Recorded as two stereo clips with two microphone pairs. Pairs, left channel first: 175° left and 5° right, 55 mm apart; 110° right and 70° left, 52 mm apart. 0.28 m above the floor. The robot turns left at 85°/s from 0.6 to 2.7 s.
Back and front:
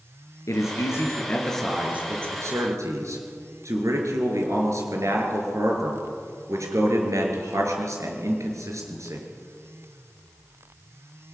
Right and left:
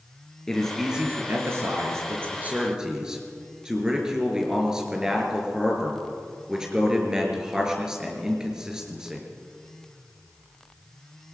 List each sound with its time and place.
0.5 s a man speaking: 175° left, 4.5 m; by 9.3 s 5° right, 4.5 m